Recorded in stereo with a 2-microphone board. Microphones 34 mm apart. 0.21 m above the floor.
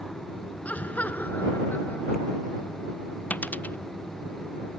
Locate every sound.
0.7 s laughter: 50° left (ahead or behind); by 2.9 s 75° left (ahead or behind)
3.3 s a dropped coin: 60° left (ahead or behind)